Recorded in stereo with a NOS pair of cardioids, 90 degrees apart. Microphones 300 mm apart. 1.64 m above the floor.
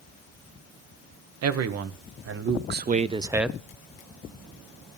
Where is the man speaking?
60° right, 1.3 m; by 3.6 s 5° left, 0.6 m.